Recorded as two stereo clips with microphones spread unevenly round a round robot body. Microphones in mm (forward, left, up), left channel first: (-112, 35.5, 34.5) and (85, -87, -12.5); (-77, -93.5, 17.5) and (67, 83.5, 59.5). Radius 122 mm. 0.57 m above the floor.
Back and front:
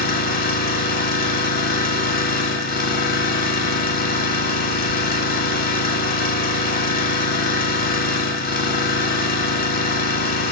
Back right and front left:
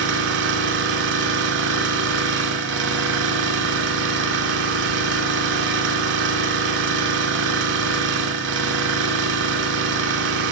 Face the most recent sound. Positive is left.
turn(degrees=90)